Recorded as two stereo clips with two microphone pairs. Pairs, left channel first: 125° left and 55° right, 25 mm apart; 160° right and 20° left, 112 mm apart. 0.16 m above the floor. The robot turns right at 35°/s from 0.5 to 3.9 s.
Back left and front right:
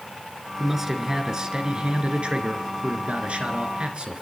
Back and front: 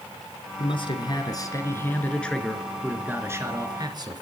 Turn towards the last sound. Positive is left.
turn(degrees=-25)